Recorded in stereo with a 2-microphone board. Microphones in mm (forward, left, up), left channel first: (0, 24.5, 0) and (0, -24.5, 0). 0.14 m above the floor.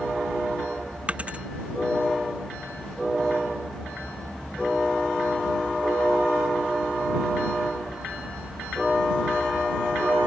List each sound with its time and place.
1.1 s a dropped coin: 25° right (ahead or behind)